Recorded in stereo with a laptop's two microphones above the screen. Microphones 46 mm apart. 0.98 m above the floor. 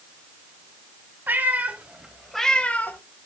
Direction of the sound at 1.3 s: 45° right (ahead or behind).